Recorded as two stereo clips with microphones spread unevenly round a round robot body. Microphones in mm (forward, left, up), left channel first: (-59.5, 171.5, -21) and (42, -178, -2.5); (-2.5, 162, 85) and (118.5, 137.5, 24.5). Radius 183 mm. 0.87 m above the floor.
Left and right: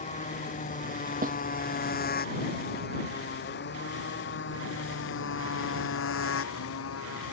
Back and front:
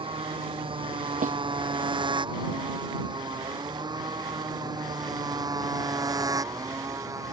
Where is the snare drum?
5° right.